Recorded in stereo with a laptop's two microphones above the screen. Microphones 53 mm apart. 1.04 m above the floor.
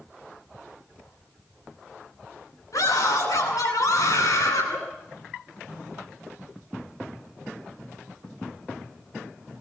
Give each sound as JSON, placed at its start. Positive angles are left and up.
{"t": 2.7, "sound": "a scream", "side_deg": 85, "distance_m": 9.5}